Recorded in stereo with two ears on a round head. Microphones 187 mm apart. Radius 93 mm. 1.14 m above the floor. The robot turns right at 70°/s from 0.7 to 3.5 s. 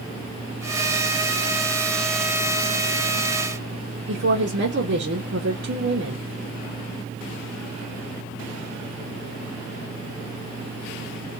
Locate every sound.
4.1 s a woman speaking: 55° right (ahead or behind), 1.0 m